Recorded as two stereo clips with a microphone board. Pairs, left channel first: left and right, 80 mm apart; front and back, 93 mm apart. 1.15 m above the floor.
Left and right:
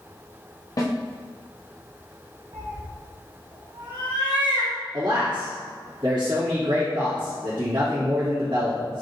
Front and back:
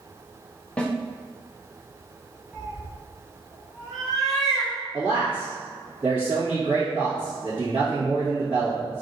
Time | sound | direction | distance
0.8 | a snare drum | 70° left | 0.7 m
2.5 | a cat meowing | 90° right | 1.4 m
4.9 | a man speaking | 120° right | 1.7 m